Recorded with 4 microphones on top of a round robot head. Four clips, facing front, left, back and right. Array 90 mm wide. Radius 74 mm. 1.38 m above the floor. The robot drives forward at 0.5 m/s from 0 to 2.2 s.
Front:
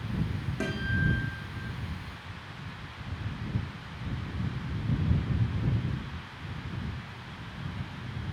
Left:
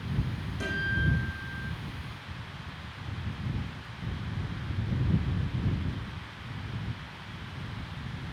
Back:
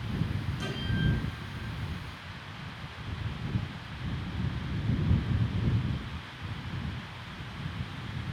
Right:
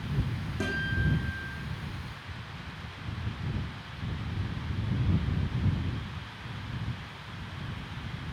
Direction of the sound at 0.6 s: 35° right.